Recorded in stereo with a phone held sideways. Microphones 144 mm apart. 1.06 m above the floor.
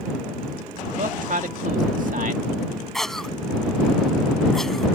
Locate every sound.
0.9 s a man speaking: 65° right (ahead or behind)
2.9 s a cough: 5° left (ahead or behind)